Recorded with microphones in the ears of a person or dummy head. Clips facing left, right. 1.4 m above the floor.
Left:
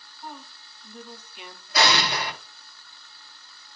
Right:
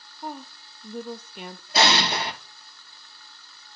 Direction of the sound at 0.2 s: 40° right (ahead or behind).